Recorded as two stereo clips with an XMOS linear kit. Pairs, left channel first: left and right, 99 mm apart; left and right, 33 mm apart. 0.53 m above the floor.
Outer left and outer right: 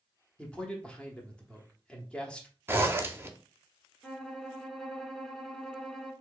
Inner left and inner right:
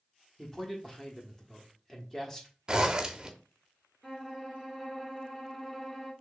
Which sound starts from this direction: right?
A zipper, at 2.7 s.